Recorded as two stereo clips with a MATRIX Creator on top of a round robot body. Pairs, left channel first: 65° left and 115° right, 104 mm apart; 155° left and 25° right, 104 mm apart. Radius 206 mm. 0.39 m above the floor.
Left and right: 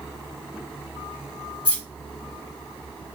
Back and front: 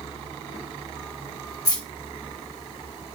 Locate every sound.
1.6 s keys jangling: 100° left, 1.8 m